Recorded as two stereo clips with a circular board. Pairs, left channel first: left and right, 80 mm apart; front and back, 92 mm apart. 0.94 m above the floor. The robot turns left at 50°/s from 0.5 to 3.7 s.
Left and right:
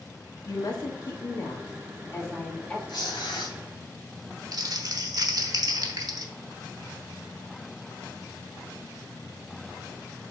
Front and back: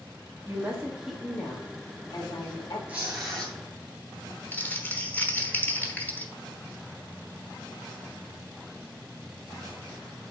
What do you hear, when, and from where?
0.5 s a woman speaking: 125° left, 1.8 m; by 2.8 s 10° left, 1.8 m
2.9 s tearing paper: 110° left, 3 m; by 3.6 s 75° left, 3 m
4.5 s crumpling: 65° right, 1.0 m